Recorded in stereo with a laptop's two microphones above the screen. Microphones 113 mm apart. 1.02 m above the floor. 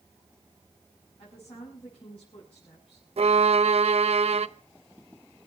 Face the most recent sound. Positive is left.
turn(degrees=-65)  # may be behind; listen again after turning